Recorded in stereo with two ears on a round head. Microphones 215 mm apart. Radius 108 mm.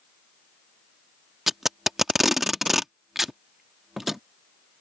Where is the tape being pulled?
Centre (ahead or behind).